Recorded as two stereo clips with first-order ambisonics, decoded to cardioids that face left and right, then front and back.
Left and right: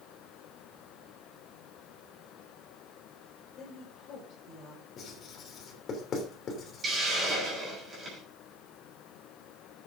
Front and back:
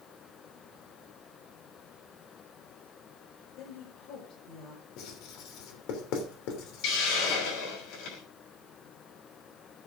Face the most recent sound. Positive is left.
turn(degrees=-20)